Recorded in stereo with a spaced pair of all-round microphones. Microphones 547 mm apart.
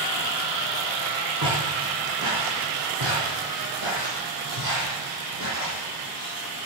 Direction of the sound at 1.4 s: 40° right (ahead or behind).